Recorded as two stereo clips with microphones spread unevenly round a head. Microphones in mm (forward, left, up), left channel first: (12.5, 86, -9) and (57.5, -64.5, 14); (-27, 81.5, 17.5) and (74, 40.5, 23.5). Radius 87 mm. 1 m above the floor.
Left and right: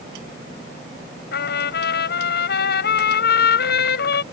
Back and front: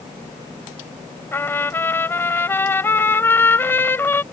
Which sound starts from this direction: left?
A trumpet, at 1.3 s.